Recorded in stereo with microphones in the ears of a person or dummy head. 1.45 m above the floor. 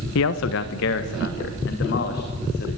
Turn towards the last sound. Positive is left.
turn(degrees=50)  # may be behind; listen again after turning